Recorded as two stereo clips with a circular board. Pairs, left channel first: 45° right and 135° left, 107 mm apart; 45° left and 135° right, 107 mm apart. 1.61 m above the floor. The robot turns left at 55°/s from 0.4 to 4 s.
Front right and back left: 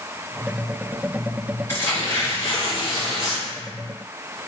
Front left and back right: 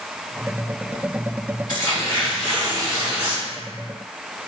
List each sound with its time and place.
1.7 s tearing paper: 15° left, 1.5 m; by 3.5 s 80° right, 1.5 m